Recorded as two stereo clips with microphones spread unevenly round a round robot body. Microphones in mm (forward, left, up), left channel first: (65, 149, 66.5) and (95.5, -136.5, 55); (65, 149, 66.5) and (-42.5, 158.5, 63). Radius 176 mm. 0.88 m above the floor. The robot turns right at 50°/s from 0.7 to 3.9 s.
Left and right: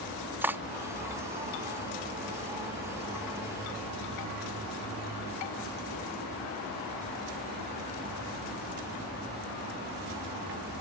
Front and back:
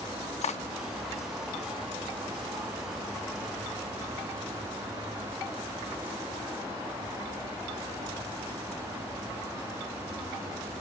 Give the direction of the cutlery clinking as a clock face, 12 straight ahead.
12 o'clock.